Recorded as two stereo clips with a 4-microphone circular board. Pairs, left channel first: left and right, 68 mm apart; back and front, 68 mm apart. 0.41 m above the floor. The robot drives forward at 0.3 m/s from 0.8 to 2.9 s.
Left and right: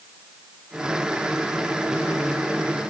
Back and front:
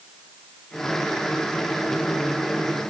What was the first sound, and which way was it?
Only background noise.